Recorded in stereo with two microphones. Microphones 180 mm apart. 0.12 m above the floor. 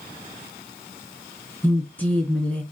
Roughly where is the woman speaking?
Centre.